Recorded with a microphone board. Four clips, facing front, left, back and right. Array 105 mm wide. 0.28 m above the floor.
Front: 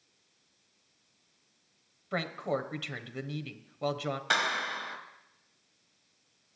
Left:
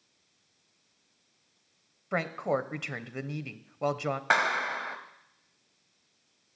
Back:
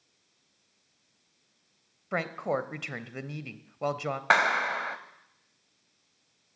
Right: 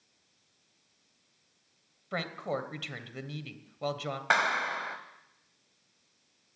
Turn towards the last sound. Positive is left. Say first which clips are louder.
# even, back 8 dB
turn(degrees=175)